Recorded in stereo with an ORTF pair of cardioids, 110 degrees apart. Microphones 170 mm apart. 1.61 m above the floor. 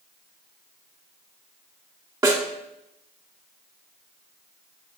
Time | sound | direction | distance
2.2 | a snare drum | 20° right | 2.5 m